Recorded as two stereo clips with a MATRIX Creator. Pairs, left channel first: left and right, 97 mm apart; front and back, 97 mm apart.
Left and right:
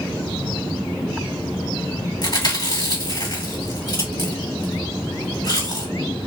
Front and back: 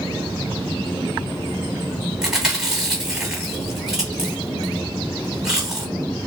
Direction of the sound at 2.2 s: 100° left.